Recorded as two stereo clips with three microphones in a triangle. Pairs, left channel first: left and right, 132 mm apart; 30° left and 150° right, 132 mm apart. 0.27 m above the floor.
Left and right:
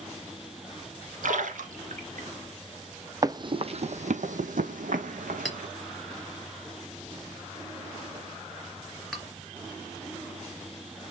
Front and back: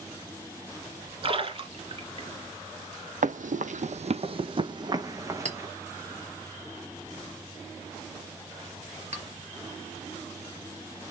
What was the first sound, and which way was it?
A splash, 105° right.